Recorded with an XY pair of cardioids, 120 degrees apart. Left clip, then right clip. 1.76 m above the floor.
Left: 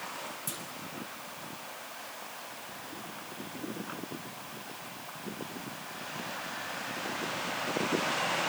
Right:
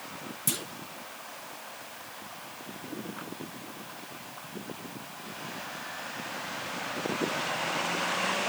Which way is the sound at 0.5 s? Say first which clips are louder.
Right 6 dB; 50° right.